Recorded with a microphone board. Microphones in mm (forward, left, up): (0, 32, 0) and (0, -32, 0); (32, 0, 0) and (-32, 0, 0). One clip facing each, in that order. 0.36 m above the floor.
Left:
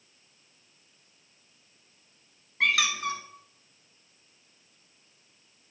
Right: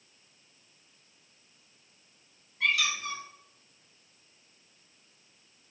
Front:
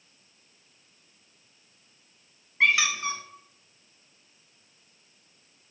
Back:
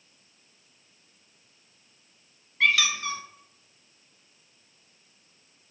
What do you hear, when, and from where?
2.6 s a squeak: 70° left, 1.0 m